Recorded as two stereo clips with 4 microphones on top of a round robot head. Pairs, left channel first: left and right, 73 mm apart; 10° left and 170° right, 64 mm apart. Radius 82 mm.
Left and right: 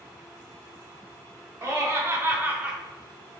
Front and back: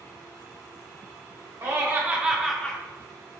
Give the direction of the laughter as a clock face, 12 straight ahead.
4 o'clock.